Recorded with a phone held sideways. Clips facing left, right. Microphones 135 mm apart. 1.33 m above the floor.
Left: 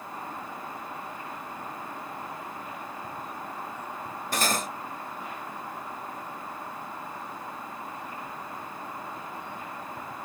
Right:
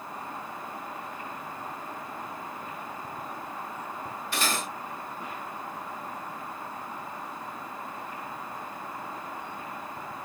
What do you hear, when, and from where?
4.3 s cutlery clinking: 40° left (ahead or behind), 0.8 m